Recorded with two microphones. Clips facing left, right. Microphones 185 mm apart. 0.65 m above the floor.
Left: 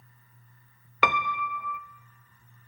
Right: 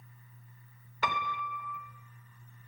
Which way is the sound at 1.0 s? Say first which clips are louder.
Left 7 dB; 80° left.